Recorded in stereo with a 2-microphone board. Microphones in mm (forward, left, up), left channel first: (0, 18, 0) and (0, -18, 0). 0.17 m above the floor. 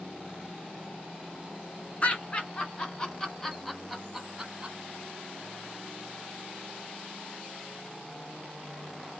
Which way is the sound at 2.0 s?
40° left (ahead or behind).